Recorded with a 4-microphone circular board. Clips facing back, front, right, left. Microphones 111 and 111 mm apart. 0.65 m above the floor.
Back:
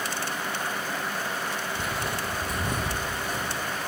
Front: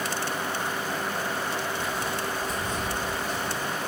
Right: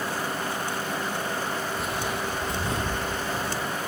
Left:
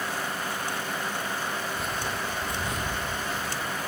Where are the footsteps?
Straight behind, 1.3 m; by 3.7 s 135° right, 2.5 m.